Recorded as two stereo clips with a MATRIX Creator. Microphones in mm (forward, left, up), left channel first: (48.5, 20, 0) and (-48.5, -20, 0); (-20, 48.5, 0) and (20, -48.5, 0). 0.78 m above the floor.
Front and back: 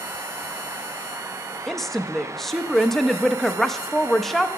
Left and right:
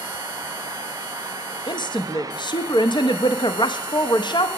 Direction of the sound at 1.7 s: 110° left.